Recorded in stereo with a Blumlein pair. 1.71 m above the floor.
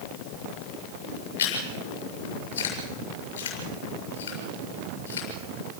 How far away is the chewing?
About 7 m.